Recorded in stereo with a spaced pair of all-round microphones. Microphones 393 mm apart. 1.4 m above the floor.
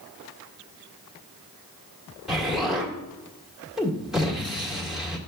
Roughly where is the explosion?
Centre.